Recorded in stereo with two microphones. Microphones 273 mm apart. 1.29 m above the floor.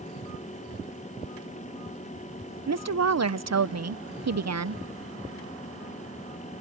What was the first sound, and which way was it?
A woman speaking, 70° right (ahead or behind).